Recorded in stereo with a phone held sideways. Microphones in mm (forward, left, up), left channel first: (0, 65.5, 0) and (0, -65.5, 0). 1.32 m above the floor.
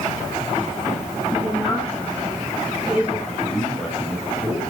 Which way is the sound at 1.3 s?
5° right (ahead or behind).